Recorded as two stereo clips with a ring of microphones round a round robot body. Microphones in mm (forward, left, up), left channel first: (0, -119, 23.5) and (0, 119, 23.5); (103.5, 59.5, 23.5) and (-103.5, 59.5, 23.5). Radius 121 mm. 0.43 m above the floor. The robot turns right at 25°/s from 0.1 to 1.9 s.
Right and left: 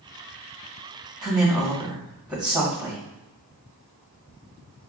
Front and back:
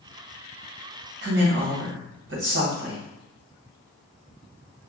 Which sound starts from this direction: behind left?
A woman speaking, at 1.2 s.